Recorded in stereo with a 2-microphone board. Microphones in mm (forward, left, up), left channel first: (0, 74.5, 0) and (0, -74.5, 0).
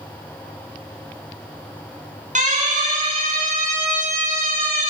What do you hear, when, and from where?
2.4 s a siren: 55° right (ahead or behind), 8.5 m; by 4.9 s 65° right (ahead or behind), 7.5 m